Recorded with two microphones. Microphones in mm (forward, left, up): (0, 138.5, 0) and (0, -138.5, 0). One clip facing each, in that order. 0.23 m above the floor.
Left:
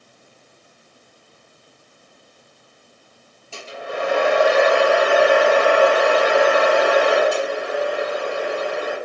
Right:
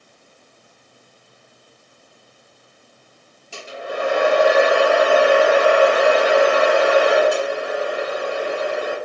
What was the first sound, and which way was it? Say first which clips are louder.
A hair dryer: right 1 dB; 20° right (ahead or behind).